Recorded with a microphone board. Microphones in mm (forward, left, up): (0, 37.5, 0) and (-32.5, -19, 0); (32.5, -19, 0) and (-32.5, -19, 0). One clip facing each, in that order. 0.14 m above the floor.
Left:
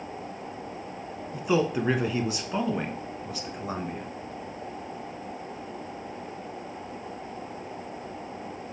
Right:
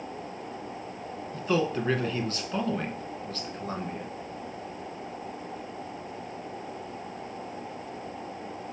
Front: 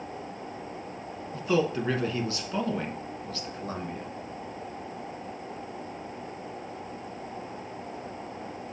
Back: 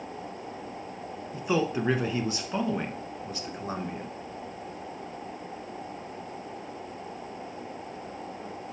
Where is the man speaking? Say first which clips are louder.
Left 2 dB, front 1 dB; 125° left, 1.1 m.